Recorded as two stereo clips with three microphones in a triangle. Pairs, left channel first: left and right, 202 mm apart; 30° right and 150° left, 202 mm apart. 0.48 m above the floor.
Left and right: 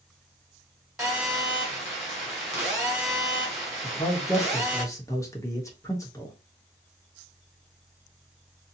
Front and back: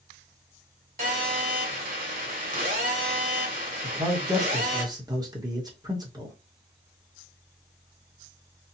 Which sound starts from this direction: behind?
A phone buzzing, at 1.0 s.